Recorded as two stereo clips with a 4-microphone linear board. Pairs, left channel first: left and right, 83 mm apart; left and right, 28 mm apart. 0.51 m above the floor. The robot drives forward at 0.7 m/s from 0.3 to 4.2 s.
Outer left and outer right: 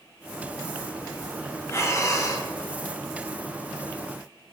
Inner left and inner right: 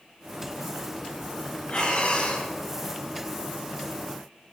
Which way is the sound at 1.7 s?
40° left (ahead or behind).